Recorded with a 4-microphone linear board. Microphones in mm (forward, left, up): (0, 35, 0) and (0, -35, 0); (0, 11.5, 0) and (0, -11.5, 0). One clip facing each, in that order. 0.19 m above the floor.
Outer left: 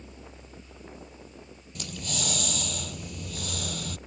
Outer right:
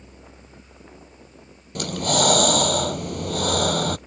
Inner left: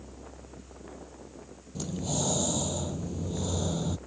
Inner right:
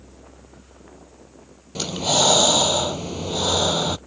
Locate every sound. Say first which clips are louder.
1.8 s breathing: outer right 15 dB, inner right 13 dB; 60° right (ahead or behind)